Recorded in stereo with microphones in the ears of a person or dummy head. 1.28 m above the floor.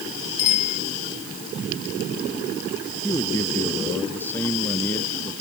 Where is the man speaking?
15° left (ahead or behind).